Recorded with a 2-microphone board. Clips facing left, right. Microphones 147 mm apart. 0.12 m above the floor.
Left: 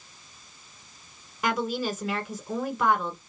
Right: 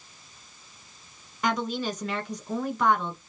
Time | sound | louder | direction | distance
1.4 | a woman speaking | even | 5° left (ahead or behind) | 1.2 m